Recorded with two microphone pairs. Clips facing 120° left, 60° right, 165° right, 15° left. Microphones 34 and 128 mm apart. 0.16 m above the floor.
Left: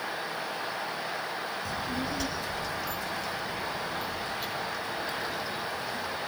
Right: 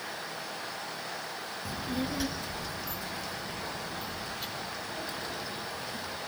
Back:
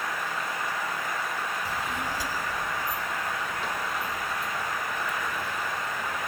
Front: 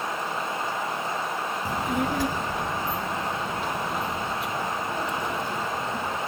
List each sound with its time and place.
1.6 s a child speaking: 10° left, 1.2 m; by 6.2 s 30° left, 4.5 m